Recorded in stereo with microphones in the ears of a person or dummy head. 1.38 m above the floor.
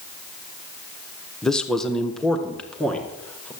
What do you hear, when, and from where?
1.4 s a man speaking: centre (ahead or behind), 0.9 m; by 3.5 s 5° left (ahead or behind), 2.0 m